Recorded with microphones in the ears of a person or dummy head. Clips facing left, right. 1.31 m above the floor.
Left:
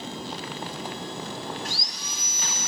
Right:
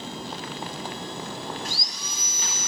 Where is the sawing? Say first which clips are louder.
Even; 65° right (ahead or behind), 0.6 m.